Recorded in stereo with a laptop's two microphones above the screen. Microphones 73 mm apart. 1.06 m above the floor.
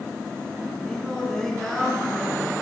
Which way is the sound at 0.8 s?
5° left (ahead or behind).